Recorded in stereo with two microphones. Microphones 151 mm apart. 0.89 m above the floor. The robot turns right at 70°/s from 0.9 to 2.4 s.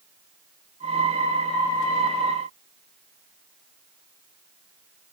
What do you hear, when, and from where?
Only background noise.